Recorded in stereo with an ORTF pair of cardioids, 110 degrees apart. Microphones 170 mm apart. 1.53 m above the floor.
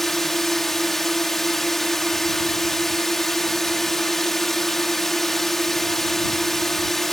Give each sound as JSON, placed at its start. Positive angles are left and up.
{"t": 0.0, "sound": "a drone", "azimuth_deg": 0}